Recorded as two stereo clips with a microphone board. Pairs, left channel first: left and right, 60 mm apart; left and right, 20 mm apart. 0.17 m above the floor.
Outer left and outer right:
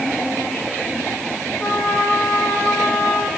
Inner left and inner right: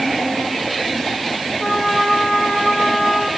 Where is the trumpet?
5° left (ahead or behind), 6 m.